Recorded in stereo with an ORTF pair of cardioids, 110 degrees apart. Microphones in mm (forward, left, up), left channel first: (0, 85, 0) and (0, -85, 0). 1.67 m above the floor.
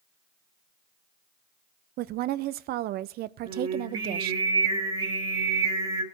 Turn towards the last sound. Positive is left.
turn(degrees=-35)